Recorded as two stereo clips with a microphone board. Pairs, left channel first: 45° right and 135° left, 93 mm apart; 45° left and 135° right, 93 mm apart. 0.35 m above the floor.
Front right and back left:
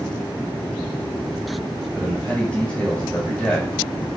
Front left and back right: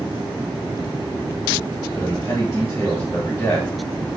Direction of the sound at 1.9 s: 20° left.